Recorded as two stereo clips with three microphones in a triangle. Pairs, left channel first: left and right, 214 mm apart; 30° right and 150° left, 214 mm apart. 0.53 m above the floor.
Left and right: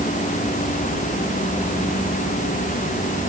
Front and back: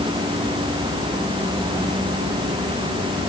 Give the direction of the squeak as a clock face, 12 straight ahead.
No squeak in this recording.